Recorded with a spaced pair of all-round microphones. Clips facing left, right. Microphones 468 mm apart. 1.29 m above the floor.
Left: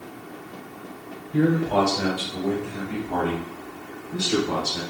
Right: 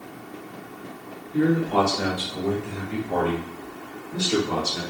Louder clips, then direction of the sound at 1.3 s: Even; 70° left (ahead or behind).